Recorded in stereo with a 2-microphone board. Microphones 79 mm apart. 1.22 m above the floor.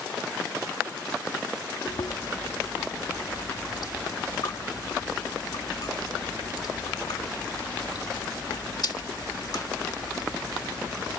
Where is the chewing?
60° left (ahead or behind).